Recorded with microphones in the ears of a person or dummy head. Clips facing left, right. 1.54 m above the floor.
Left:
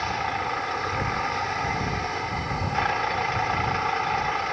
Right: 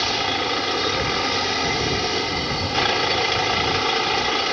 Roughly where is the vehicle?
Right.